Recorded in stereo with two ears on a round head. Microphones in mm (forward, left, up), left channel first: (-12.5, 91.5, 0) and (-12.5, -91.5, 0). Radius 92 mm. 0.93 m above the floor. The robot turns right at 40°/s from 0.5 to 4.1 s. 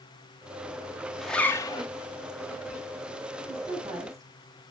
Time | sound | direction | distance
1.2 | a zipper | centre (ahead or behind) | 1.5 m
3.5 | a woman speaking | 25° right (ahead or behind) | 8.5 m